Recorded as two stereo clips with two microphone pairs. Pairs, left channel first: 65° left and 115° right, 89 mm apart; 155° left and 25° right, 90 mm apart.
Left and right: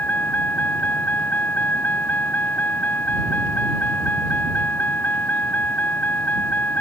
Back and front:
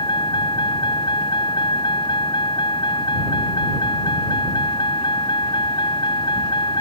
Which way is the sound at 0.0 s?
135° left.